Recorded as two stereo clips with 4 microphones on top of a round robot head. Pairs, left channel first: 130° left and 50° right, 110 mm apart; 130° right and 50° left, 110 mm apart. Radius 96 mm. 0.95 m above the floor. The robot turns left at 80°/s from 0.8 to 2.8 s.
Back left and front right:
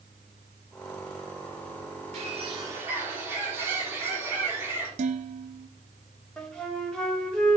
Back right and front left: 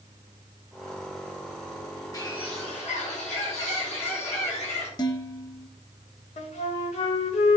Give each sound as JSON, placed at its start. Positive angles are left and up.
{"t": 2.1, "sound": "a bird", "azimuth_deg": -70, "distance_m": 4.5}
{"t": 5.0, "sound": "dishes clattering", "azimuth_deg": -75, "distance_m": 1.3}
{"t": 6.4, "sound": "a flute", "azimuth_deg": -150, "distance_m": 2.5}